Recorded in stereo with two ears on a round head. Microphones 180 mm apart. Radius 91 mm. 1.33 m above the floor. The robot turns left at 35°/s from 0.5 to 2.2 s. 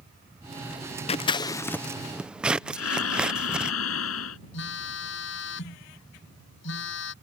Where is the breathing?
80° left.